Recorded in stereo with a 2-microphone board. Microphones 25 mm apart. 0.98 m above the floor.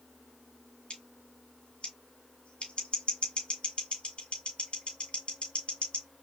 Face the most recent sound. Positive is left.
turn(degrees=55)  # may be behind; listen again after turning